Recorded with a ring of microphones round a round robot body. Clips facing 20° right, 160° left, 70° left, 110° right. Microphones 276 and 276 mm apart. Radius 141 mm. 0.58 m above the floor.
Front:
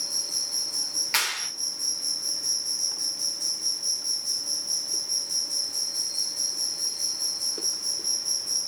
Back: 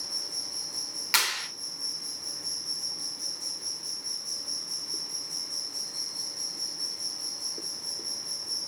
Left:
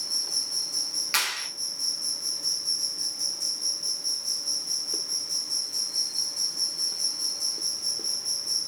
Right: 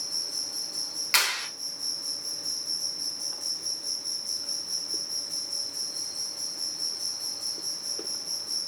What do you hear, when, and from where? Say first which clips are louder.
0.0 s an insect: front 1 dB, even; 45° left, 0.8 m
1.1 s a clap: back 1 dB, right 3 dB; 165° left, 0.9 m